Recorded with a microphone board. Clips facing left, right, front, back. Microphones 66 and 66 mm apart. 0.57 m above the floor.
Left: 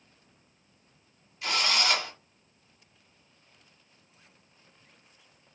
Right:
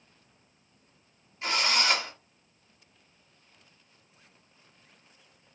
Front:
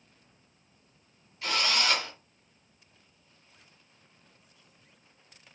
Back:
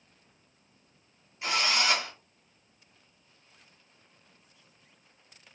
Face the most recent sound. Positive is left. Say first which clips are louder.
# right 1 dB, back 1 dB
turn(degrees=-125)